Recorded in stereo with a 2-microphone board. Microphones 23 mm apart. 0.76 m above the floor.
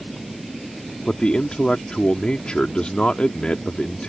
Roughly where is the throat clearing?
No throat clearing in this recording.